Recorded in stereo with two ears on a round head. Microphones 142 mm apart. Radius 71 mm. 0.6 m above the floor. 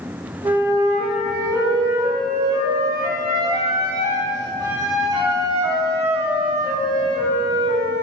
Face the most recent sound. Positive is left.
turn(degrees=-20)  # may be behind; listen again after turning